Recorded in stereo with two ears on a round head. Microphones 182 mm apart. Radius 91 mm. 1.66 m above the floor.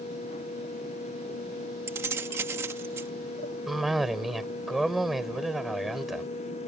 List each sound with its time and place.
1.9 s keys jangling: 15° right (ahead or behind)
3.7 s a cough: centre (ahead or behind)